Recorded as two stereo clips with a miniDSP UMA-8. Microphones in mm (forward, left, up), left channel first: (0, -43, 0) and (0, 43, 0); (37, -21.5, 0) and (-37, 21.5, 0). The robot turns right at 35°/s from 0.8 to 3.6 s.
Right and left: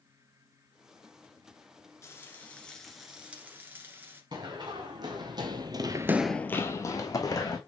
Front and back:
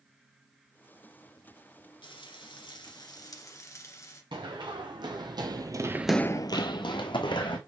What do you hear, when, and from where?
2.0 s frying: 30° right, 1.4 m; by 4.2 s 25° left, 1.4 m
4.3 s running footsteps: 125° left, 3 m; by 7.6 s 45° right, 2.5 m